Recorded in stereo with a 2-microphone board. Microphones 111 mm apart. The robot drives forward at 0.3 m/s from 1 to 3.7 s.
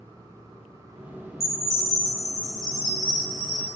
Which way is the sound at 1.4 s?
Centre (ahead or behind).